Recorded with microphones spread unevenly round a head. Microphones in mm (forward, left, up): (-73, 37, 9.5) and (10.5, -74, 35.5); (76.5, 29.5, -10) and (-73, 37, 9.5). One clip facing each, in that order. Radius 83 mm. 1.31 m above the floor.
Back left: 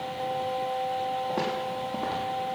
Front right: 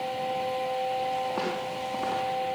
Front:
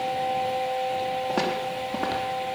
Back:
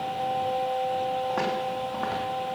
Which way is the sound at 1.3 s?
50° left.